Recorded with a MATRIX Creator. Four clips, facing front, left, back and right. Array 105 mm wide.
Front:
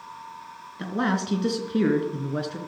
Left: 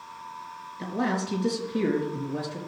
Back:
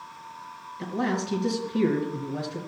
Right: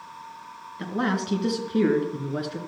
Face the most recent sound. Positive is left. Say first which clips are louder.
# right 1 dB, front 2 dB
turn(degrees=-40)